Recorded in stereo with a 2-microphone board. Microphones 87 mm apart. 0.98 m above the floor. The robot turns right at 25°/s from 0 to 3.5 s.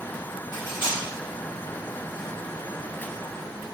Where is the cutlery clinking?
50° left (ahead or behind), 1.1 m; by 1.0 s 60° left (ahead or behind), 1.1 m.